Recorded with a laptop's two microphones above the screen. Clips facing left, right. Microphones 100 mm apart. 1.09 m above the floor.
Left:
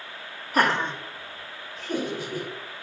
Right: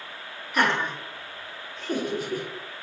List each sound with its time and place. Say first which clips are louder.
0.5 s laughter: left 1 dB; 40° left (ahead or behind), 0.7 m; by 2.5 s 40° right (ahead or behind), 1.4 m